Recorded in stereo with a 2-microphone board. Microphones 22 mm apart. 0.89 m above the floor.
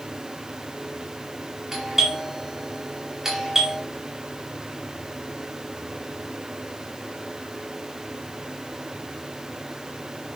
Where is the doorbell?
15° right (ahead or behind), 4.5 m.